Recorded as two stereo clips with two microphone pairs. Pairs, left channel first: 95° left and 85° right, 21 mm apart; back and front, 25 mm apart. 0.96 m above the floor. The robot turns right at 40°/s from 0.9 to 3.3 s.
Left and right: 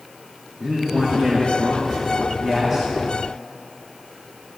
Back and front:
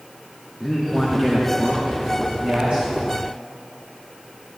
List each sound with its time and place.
0.6 s a man speaking: 90° right, 1.4 m; by 2.9 s 10° right, 1.4 m